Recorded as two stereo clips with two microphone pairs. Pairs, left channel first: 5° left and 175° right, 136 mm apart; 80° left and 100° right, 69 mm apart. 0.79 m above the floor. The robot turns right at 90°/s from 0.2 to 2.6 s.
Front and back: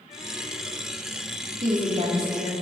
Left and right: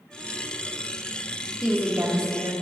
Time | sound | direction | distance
1.6 | a woman speaking | 170° left | 1.6 m